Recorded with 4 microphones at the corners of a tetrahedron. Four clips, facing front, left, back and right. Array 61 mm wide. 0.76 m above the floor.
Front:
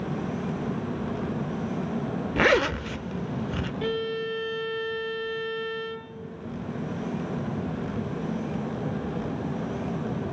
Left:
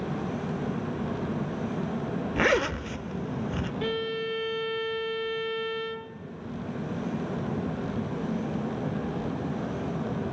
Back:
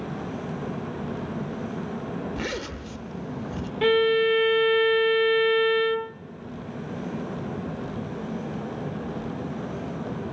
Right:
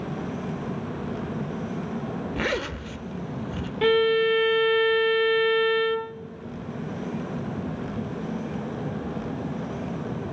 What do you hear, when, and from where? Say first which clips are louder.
2.4 s a zipper: left 5 dB, front 10 dB; 25° left, 0.8 m
3.8 s a violin: right 13 dB, back 11 dB; 135° right, 0.6 m